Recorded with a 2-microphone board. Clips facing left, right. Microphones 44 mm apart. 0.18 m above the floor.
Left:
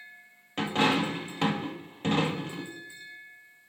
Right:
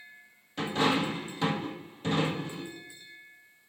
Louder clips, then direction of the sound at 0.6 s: Left 2 dB; 50° left (ahead or behind).